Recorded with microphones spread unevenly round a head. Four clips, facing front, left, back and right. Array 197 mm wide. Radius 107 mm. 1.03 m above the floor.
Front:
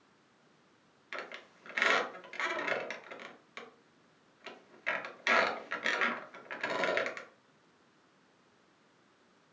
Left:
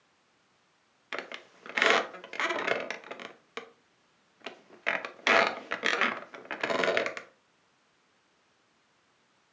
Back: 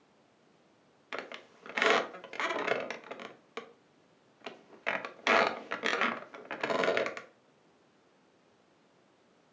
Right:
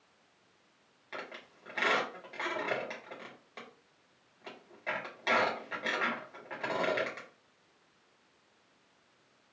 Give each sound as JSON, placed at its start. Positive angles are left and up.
{"t": 1.1, "sound": "a squeak", "azimuth_deg": 100, "distance_m": 0.6}